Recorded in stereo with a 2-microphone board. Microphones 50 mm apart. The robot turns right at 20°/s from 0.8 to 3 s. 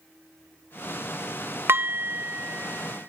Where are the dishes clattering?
55° right (ahead or behind), 0.6 m; by 3.1 s 40° right (ahead or behind), 0.6 m.